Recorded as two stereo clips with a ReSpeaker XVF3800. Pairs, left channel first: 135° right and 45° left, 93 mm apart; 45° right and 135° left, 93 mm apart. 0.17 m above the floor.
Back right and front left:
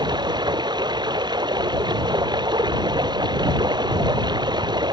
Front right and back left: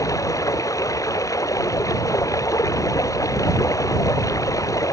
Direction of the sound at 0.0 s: 5° left.